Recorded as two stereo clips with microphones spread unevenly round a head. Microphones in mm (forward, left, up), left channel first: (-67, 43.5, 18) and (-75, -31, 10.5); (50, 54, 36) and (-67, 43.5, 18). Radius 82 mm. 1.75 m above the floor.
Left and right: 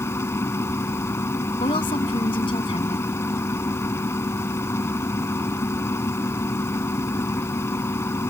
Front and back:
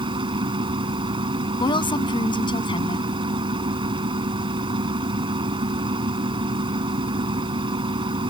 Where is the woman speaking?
55° left.